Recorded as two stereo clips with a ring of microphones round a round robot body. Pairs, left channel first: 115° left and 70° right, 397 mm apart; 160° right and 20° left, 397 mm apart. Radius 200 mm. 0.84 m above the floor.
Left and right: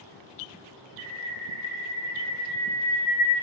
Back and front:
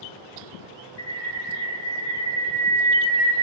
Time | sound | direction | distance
1.0 | a bird | 135° right | 2.5 m